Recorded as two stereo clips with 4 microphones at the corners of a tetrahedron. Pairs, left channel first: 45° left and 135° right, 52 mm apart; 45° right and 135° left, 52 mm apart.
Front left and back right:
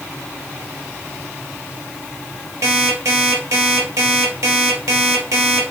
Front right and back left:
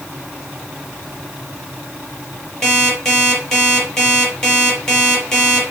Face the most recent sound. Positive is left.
turn(degrees=-120)